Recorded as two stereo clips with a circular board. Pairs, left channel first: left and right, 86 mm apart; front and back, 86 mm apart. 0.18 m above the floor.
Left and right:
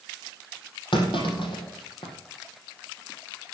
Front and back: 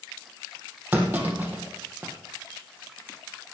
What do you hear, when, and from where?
0.9 s a clunk: 110° left, 3 m